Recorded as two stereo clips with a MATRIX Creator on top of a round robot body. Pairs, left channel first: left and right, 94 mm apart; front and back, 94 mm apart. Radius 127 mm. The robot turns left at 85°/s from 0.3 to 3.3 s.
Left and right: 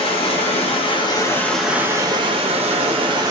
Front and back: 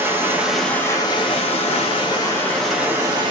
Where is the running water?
110° left, 0.9 m; by 3.3 s 145° right, 0.9 m.